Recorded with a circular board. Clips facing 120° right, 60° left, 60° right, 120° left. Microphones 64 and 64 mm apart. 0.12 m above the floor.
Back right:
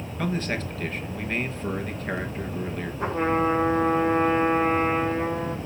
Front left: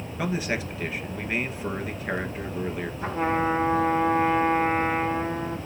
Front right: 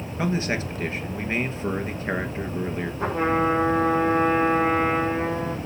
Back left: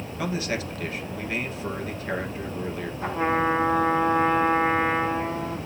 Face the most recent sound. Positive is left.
turn(degrees=-80)